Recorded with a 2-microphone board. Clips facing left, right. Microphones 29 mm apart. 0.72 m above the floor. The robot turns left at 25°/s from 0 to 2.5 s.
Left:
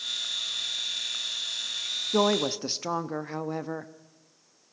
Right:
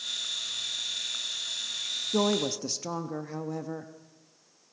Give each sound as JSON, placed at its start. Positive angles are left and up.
{"t": 2.1, "sound": "a woman speaking", "side_deg": 30, "distance_m": 0.7}